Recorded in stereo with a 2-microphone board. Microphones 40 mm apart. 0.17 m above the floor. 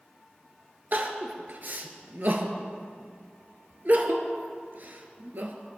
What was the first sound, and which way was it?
Crying, 50° right (ahead or behind).